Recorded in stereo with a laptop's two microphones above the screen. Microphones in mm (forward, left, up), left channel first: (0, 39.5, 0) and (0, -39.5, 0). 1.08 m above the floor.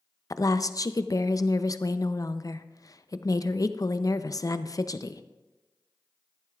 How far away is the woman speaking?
About 0.5 m.